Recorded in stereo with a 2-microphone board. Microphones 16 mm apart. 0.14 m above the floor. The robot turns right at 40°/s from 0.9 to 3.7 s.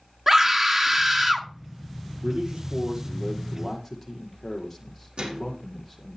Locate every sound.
0.3 s a scream: 30° right (ahead or behind), 1.7 m; by 1.5 s 20° right (ahead or behind), 1.7 m
2.2 s a man speaking: 65° right, 6 m; by 6.2 s 5° right, 6 m
5.2 s a microwave: 75° right (ahead or behind), 6.5 m